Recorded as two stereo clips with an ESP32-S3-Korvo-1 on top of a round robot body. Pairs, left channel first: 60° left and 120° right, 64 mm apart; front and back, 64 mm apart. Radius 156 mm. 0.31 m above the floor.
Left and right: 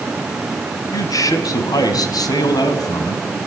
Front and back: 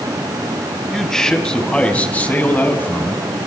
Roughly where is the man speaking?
Left.